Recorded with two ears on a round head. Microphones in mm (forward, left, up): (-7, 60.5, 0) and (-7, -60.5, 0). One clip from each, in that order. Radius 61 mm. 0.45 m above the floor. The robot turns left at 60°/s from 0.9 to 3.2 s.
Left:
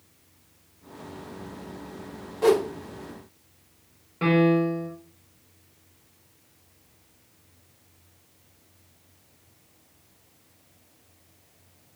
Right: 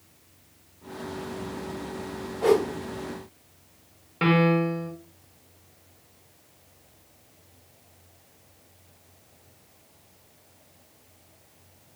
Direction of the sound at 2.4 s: 70° left (ahead or behind).